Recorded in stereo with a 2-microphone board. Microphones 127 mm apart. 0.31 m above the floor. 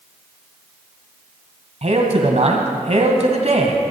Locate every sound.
1.8 s a man speaking: 60° right (ahead or behind), 1.9 m